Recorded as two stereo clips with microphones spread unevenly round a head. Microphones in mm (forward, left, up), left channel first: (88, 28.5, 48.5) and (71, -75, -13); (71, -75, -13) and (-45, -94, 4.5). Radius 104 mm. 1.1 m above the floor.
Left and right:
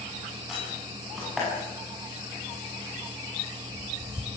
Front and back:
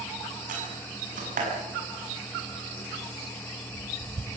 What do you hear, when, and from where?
0.5 s a door slam: 170° left, 6.5 m